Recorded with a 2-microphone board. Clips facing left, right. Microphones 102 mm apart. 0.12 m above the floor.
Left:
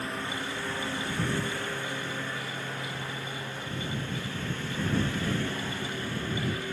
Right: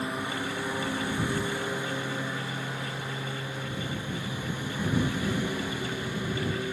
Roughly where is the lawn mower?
Centre.